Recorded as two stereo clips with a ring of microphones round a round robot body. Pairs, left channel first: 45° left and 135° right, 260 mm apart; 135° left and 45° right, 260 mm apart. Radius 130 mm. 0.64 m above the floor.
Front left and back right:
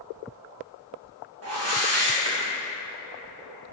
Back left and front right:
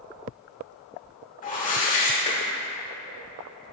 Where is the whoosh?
165° right, 2.0 m.